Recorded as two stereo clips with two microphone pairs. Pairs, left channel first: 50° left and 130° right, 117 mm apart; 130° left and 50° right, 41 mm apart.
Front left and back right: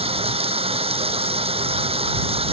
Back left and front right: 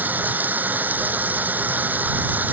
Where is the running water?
95° right.